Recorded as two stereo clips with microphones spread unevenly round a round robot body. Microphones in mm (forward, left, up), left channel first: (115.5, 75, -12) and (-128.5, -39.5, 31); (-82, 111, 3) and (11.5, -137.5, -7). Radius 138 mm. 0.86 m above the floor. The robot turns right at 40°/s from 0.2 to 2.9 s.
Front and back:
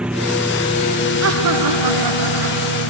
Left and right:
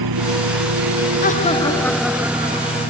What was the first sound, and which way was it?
A lawn mower, 70° right.